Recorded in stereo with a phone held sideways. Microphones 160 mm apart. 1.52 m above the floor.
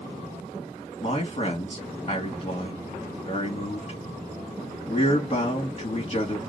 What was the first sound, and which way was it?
A man speaking, 35° left (ahead or behind).